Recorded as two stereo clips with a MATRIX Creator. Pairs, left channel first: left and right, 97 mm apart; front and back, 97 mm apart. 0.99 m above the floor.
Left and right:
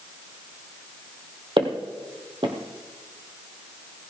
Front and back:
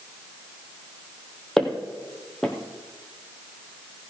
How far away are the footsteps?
About 1.9 m.